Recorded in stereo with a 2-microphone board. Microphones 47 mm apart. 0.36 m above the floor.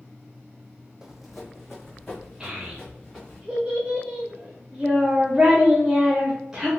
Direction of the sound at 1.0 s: 15° right (ahead or behind).